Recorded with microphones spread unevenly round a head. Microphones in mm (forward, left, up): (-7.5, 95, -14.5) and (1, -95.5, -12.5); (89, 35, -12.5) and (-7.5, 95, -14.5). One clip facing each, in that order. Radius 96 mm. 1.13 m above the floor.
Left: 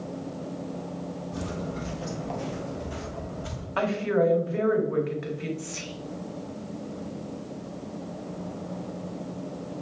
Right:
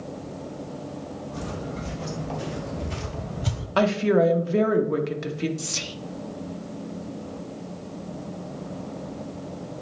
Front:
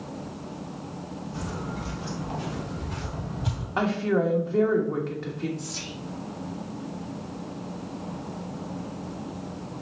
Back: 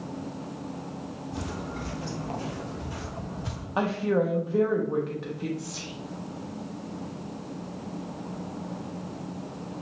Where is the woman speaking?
125° right, 1.0 m.